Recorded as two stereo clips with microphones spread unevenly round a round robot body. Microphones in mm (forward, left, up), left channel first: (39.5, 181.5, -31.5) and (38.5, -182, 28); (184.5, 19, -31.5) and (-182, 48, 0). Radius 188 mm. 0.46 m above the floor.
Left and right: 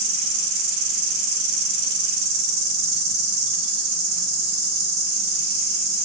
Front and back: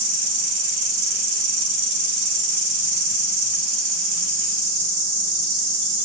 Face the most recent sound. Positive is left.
turn(degrees=-125)